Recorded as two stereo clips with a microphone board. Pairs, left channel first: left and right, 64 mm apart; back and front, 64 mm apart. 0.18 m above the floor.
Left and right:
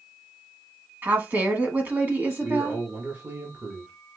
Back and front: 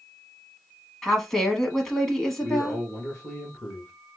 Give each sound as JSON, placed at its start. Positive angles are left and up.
{"t": 1.0, "sound": "a woman speaking", "azimuth_deg": -105, "distance_m": 1.2}
{"t": 2.4, "sound": "a man speaking", "azimuth_deg": -110, "distance_m": 1.6}